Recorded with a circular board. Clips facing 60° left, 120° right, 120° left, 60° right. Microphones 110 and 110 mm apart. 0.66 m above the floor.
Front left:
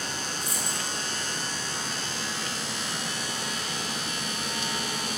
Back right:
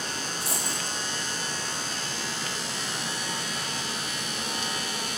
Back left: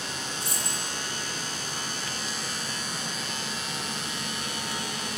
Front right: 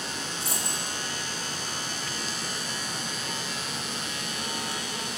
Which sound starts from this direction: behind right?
A dropped coin, at 0.4 s.